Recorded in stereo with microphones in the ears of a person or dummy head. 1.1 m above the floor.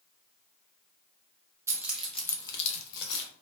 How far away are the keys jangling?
About 0.7 m.